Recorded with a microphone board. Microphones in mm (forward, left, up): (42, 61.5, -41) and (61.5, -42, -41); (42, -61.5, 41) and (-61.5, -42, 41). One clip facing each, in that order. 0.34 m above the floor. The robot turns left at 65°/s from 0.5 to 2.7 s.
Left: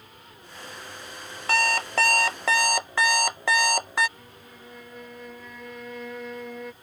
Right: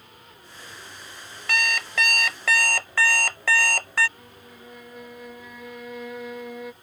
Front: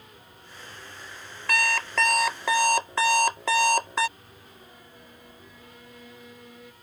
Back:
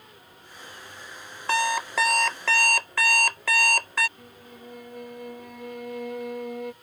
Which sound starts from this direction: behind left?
An alarm clock, at 1.5 s.